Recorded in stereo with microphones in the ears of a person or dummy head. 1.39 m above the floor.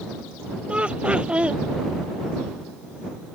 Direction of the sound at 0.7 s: 10° right (ahead or behind).